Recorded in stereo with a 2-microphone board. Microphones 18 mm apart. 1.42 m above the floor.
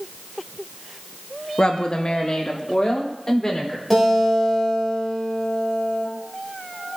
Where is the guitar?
5° left (ahead or behind), 2.5 m.